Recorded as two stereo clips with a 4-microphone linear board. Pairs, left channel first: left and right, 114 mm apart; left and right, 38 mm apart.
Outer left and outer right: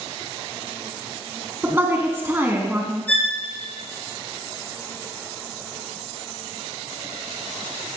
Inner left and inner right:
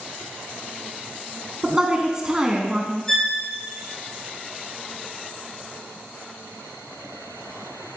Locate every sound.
1.6 s a woman speaking: 20° right (ahead or behind), 1.2 m
3.1 s a violin: 15° left (ahead or behind), 3 m